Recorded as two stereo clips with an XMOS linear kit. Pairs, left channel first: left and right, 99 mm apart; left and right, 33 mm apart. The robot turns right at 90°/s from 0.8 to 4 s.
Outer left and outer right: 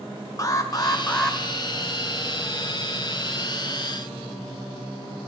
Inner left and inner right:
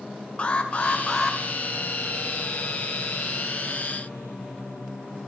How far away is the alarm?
About 1.9 m.